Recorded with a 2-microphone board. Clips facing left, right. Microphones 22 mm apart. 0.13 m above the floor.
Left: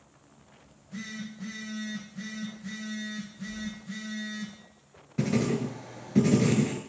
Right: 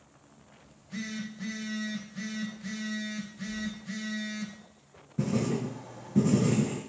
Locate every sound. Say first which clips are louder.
0.7 s a phone buzzing: right 2 dB; 25° right (ahead or behind), 1.0 m
3.5 s keys jangling: right 2 dB; 10° left (ahead or behind), 1.9 m
5.2 s writing: left 2 dB; 60° left (ahead or behind), 0.6 m